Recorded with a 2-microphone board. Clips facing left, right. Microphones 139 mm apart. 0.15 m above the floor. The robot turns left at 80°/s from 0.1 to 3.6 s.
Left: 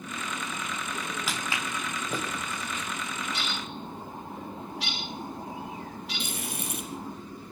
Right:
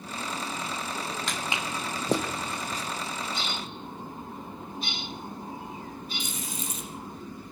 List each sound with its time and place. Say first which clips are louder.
1.3 s footsteps: right 1 dB; 5° left (ahead or behind), 3.5 m; by 2.8 s 30° right (ahead or behind), 3 m
3.3 s a bird: even; 60° left (ahead or behind), 6.5 m; by 7.2 s 85° left, 6.5 m
6.2 s frying: left 1 dB; 60° left (ahead or behind), 4 m